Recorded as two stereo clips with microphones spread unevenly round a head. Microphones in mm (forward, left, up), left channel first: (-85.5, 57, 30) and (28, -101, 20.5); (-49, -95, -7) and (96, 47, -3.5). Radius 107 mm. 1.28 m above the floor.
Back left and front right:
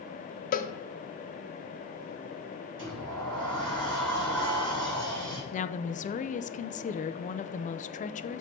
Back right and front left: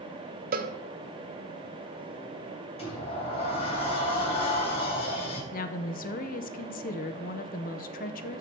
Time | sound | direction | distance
0.5 | a cowbell | 85° left | 0.7 m
2.8 | a sliding door | 75° right | 3.5 m
5.5 | a woman speaking | 175° left | 0.6 m